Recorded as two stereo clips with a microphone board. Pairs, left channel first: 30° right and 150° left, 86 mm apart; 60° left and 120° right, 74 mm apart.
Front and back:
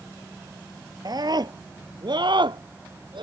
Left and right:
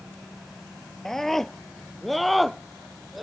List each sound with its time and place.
1.1 s a scream: 145° left; by 3.2 s 155° left